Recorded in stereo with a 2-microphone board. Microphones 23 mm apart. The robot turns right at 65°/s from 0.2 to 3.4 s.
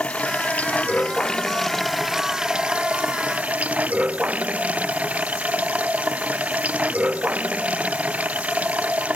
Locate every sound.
0.0 s running water: 65° left; by 9.2 s 85° right